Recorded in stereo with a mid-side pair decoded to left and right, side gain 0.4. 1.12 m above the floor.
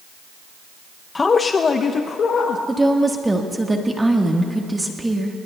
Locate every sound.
1.1 s a man speaking: 30° left, 0.6 m; by 2.6 s 65° left, 1.4 m
2.7 s a woman speaking: 20° right, 1.4 m